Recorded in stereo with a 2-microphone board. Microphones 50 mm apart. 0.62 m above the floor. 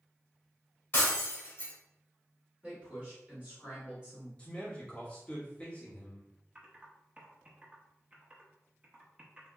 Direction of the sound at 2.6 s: 10° right (ahead or behind).